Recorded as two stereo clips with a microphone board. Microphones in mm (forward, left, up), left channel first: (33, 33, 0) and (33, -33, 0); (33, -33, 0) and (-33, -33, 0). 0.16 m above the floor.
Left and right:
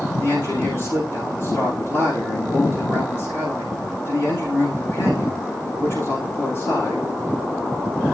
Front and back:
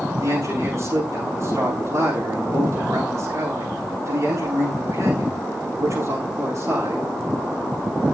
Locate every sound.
0.2 s a man speaking: 145° left, 10 m